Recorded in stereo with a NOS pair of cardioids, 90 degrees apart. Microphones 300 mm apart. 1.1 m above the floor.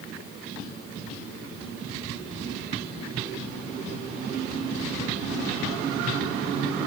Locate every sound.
Only background noise.